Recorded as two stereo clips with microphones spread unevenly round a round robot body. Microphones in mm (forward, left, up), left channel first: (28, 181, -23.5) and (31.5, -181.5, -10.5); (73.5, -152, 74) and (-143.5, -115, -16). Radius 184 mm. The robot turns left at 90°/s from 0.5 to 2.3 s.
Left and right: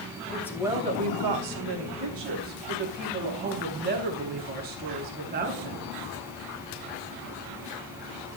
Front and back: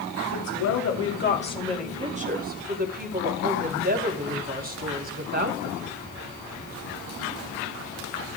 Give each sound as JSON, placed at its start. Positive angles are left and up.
{"t": 0.3, "sound": "a woman speaking", "azimuth_deg": 5, "distance_m": 3.0}